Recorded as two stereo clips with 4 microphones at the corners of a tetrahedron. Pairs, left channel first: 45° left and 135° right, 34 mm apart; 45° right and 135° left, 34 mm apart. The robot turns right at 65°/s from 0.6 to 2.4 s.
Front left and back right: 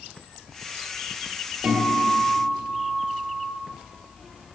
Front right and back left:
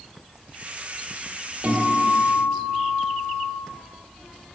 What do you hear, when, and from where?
1.6 s a guitar: 165° left, 2 m; by 3.5 s 145° right, 2 m